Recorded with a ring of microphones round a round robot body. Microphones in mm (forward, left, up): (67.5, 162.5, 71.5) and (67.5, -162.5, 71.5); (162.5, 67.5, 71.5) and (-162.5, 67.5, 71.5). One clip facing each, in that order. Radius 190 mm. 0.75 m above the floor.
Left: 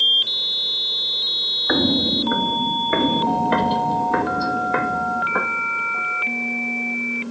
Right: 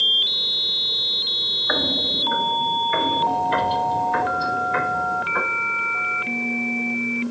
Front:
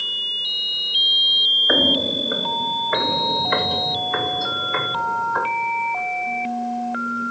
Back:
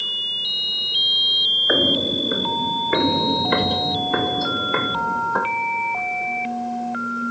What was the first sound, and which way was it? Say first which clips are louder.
Footsteps: left 8 dB, even; 95° left.